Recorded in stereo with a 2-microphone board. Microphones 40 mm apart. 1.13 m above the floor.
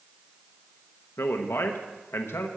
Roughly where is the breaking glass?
No breaking glass in this recording.